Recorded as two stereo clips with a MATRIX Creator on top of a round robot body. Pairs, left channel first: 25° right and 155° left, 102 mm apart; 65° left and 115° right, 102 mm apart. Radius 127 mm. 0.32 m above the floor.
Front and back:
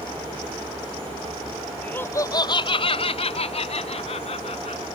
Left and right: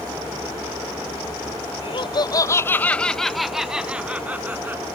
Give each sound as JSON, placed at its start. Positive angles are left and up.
{"t": 1.8, "sound": "laughter", "azimuth_deg": 50}